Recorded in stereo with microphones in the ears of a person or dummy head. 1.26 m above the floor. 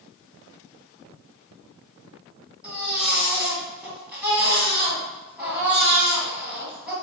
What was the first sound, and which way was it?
A baby crying, 5° right (ahead or behind).